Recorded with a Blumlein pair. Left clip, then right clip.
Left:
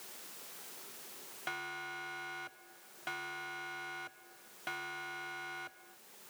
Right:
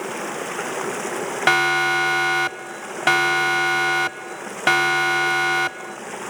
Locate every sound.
0.0 s running water: 45° right
1.5 s a siren: 50° right